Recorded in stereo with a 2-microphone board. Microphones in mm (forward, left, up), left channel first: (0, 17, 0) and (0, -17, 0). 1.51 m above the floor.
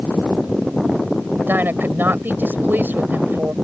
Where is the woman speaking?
80° right.